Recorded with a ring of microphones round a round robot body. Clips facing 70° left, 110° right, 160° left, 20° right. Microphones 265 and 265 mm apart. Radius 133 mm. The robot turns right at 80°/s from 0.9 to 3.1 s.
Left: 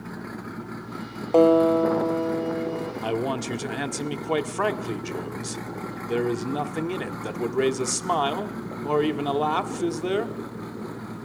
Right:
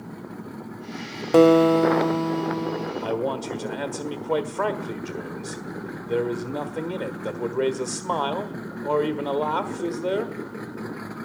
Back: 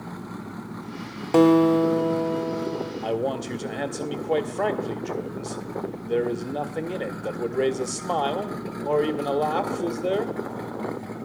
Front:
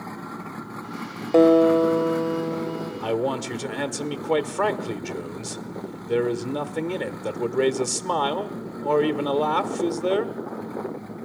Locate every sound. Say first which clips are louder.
1.3 s a guitar: right 2 dB, front 1 dB; 150° right, 0.9 m; by 2.9 s 25° right, 0.9 m
3.0 s a man speaking: left 1 dB, front 3 dB; 35° left, 1.3 m; by 10.3 s 40° left, 1.3 m